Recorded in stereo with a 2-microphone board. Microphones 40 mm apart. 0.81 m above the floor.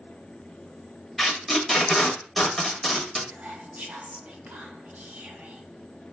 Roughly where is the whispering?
Right.